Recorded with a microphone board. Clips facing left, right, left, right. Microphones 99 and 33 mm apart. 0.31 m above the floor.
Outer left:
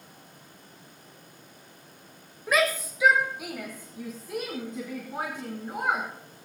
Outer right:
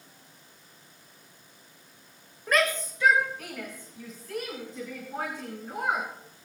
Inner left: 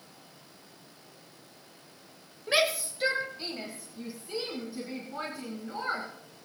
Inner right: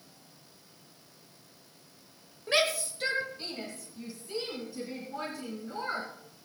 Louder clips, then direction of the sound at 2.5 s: Outer left 1 dB, inner left 1 dB; 5° left (ahead or behind).